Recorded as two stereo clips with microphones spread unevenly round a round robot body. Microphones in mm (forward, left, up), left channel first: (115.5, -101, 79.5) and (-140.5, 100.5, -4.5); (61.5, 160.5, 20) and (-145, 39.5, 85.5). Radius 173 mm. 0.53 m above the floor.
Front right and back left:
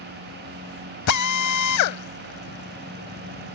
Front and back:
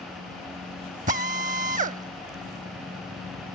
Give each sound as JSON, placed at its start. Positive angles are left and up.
{"t": 1.1, "sound": "a drill", "azimuth_deg": -80}